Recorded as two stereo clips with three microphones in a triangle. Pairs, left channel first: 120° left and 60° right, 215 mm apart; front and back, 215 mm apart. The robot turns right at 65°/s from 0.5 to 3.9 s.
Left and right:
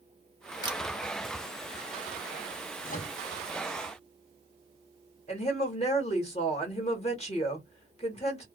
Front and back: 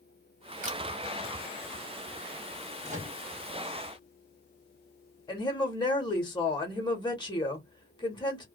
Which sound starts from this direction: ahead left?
A woman speaking, at 5.3 s.